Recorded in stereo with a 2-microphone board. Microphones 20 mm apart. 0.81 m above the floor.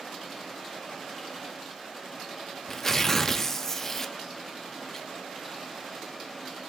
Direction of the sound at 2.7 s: 15° left (ahead or behind).